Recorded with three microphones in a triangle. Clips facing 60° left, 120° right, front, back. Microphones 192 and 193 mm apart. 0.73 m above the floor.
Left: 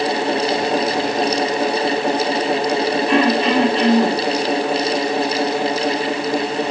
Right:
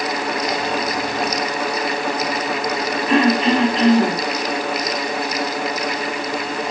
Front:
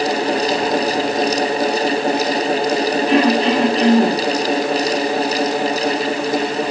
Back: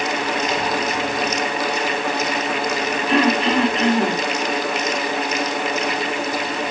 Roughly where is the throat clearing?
Ahead right.